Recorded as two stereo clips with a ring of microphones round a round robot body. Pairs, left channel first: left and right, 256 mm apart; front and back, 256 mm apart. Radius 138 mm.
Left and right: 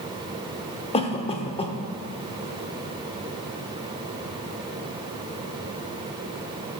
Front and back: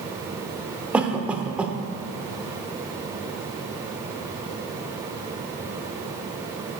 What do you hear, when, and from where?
0.9 s a cough: 105° left, 0.7 m